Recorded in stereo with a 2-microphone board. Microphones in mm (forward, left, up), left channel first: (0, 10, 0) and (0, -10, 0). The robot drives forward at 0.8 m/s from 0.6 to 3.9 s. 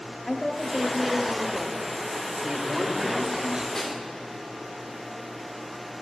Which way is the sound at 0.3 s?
40° left (ahead or behind).